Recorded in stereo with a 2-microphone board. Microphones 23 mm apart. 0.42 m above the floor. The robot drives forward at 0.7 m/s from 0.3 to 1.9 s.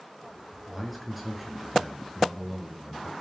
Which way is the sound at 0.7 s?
5° right (ahead or behind).